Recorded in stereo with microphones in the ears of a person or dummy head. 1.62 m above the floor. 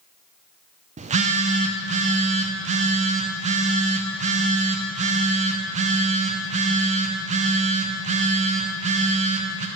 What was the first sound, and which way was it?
A phone buzzing, 40° right (ahead or behind).